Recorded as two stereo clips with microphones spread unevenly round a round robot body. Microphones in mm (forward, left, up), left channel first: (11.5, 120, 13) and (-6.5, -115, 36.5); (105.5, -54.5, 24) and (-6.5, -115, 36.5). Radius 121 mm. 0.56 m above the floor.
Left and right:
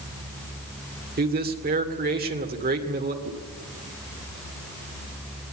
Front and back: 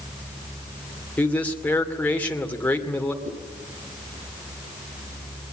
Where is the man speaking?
45° right, 2.5 m.